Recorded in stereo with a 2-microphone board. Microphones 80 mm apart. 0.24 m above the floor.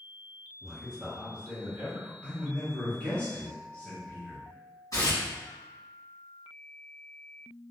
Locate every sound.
0.6 s a man speaking: centre (ahead or behind), 1.3 m; by 2.1 s 30° right (ahead or behind), 1.6 m
2.2 s a man speaking: 15° left (ahead or behind), 0.9 m
4.9 s tearing paper: 50° left (ahead or behind), 1.7 m